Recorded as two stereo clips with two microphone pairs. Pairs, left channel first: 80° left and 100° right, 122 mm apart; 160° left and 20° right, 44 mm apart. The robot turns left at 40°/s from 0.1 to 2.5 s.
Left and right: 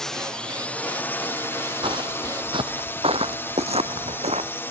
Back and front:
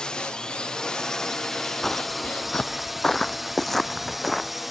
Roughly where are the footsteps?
Behind right.